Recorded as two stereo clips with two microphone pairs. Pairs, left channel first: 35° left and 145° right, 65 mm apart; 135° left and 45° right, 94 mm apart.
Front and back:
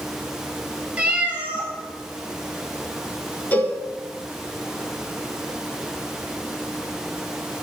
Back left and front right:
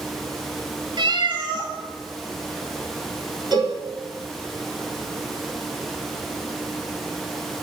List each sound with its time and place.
1.0 s a cat meowing: 80° right, 1.6 m
3.5 s a cowbell: 25° right, 1.4 m